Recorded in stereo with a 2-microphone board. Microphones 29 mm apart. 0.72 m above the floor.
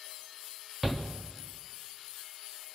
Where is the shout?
5° right (ahead or behind), 0.9 m.